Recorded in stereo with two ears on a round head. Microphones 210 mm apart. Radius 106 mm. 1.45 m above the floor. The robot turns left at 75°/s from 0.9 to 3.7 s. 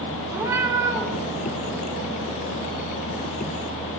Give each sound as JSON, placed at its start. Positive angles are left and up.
{"t": 0.3, "sound": "a cat meowing", "side_deg": -10, "distance_m": 3.0}